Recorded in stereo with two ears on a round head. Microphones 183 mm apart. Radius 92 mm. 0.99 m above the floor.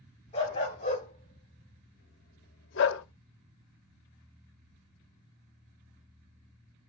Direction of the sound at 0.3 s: 30° left (ahead or behind).